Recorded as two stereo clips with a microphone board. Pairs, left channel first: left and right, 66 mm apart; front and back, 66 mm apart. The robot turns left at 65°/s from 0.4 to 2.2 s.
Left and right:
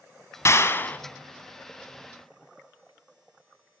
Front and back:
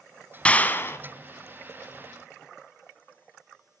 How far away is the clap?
About 1.1 m.